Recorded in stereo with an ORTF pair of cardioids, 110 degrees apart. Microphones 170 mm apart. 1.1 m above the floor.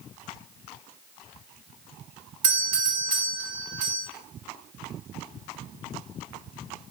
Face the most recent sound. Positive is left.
turn(degrees=-55)